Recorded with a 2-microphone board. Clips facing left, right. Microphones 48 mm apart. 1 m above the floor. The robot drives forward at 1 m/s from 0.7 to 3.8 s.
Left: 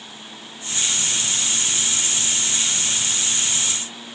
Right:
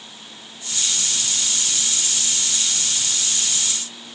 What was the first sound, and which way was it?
Only background noise.